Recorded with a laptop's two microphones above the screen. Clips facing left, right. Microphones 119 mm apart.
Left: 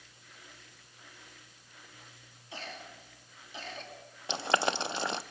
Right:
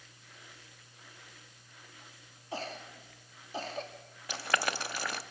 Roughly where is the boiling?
Left.